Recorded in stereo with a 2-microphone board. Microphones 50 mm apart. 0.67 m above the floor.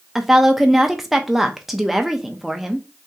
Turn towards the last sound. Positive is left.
turn(degrees=-5)  # may be behind; listen again after turning